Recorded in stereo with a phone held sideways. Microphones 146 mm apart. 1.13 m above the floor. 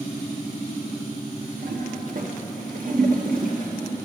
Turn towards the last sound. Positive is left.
turn(degrees=-65)  # may be behind; listen again after turning